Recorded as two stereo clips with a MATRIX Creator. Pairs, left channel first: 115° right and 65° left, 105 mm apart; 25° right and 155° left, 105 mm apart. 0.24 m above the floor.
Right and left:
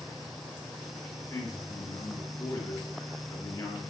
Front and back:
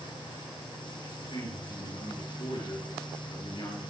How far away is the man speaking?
About 4 m.